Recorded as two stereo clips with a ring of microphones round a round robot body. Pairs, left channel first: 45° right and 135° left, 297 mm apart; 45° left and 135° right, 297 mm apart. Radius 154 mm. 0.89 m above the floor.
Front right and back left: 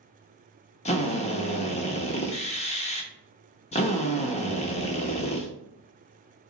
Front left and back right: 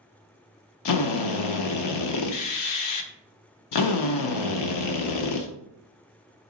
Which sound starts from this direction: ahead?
A drill, at 0.8 s.